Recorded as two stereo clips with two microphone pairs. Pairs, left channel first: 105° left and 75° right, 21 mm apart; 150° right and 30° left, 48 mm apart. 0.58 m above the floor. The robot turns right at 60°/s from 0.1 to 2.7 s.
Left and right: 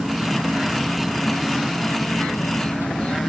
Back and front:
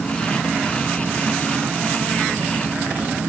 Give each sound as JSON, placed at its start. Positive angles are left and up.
{"t": 0.0, "sound": "an insect", "azimuth_deg": -70}